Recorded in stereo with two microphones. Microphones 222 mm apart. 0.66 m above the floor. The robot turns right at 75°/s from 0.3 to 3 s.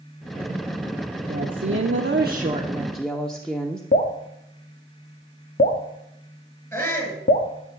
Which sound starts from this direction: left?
Dripping, at 3.9 s.